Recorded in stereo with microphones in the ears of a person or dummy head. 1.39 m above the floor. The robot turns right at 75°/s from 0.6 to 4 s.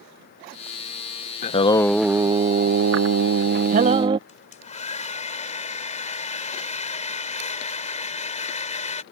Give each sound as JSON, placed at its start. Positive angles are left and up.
{"t": 1.4, "sound": "singing", "azimuth_deg": 135}
{"t": 4.3, "sound": "a hair dryer", "side_deg": 40}